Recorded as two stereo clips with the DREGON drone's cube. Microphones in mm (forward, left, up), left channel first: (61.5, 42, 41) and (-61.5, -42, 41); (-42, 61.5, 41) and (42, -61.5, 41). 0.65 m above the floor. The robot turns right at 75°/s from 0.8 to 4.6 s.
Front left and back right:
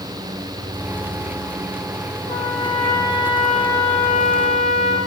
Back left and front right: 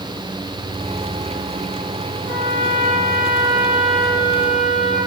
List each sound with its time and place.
2.3 s a trumpet: 145° right, 8 m; by 5.0 s 30° left, 8 m